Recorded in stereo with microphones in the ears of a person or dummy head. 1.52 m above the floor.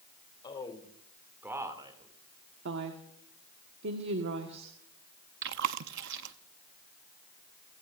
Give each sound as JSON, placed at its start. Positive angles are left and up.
{"t": 0.4, "sound": "a man speaking", "side_deg": 25, "distance_m": 2.5}
{"t": 2.6, "sound": "a woman speaking", "side_deg": -65, "distance_m": 1.4}
{"t": 5.4, "sound": "chewing", "side_deg": -60, "distance_m": 0.7}